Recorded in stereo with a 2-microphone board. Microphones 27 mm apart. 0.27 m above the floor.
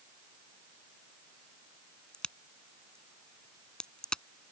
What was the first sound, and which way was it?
A crack, 40° left (ahead or behind).